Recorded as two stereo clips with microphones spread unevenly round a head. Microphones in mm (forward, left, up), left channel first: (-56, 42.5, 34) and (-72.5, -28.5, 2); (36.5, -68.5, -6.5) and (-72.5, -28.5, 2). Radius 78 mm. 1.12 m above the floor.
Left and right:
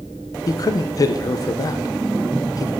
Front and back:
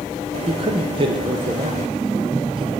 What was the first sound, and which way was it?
A man speaking, 125° left.